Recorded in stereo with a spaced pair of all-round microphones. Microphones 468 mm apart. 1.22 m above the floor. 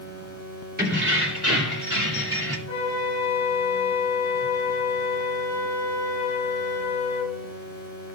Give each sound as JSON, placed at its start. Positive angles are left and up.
{"t": 0.8, "sound": "keys jangling", "side_deg": -20, "distance_m": 2.5}
{"t": 2.7, "sound": "a flute", "side_deg": 30, "distance_m": 3.0}